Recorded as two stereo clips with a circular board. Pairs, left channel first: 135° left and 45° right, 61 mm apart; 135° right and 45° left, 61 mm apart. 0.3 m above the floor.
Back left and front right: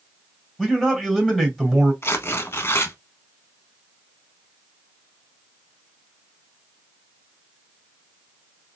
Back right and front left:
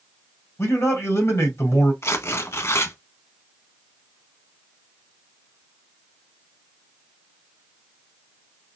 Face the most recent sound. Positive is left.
turn(degrees=180)